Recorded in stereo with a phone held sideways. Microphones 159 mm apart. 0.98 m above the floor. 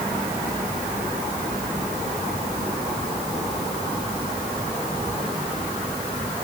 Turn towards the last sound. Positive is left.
No sound to turn to.